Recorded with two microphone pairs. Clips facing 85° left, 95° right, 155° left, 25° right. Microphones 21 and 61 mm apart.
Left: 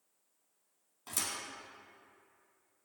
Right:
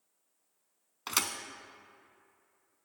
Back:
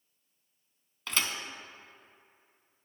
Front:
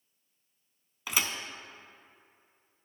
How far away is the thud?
About 0.8 m.